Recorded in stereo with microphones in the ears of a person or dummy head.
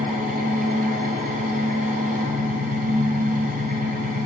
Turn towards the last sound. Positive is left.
turn(degrees=-45)  # may be behind; listen again after turning